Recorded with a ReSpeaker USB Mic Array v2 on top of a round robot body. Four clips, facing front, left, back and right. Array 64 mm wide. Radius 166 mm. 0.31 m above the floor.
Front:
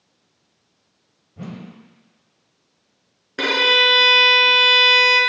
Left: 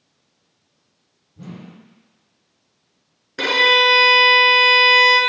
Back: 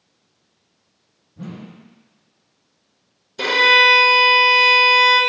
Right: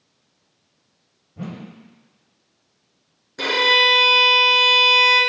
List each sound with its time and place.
1.4 s a whoosh: 55° right, 1.1 m
3.4 s a violin: 25° left, 1.9 m